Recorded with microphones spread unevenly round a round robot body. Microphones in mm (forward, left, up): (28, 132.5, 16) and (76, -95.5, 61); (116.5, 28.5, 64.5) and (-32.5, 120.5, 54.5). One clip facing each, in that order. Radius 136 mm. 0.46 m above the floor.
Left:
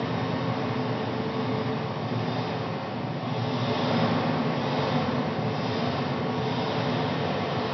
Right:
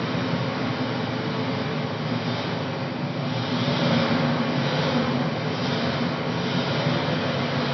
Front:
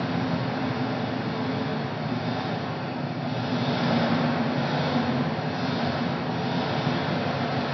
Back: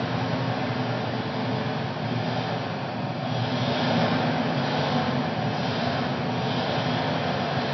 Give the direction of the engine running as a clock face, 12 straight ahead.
5 o'clock.